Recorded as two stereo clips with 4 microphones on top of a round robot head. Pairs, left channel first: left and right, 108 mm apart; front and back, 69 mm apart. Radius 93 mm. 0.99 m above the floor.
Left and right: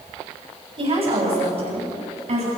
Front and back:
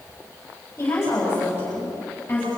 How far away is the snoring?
No snoring in this recording.